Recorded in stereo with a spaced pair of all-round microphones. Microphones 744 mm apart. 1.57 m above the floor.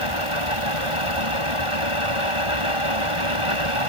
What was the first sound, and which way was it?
A fan, 45° right (ahead or behind).